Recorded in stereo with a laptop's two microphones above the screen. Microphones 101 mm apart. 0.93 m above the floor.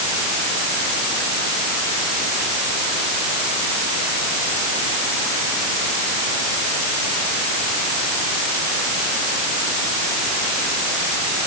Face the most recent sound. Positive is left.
No sound to turn to.